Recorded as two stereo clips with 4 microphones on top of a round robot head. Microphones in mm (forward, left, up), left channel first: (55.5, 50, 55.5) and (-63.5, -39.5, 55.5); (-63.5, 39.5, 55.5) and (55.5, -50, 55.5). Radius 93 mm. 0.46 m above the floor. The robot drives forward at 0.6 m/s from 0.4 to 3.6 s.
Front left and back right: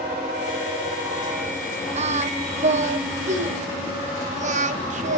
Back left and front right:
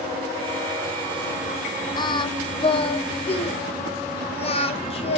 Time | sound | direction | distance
2.0 | singing | 165° right | 1.3 m